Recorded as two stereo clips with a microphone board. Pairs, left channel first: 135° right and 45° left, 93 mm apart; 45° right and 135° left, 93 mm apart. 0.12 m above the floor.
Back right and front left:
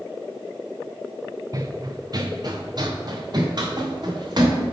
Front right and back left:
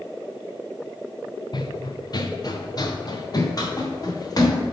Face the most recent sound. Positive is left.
turn(degrees=5)